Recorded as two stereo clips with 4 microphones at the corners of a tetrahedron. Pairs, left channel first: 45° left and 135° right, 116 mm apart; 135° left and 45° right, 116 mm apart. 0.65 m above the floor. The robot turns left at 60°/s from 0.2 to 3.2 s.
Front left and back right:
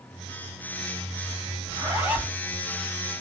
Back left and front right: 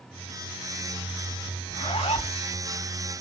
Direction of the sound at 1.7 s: 175° left.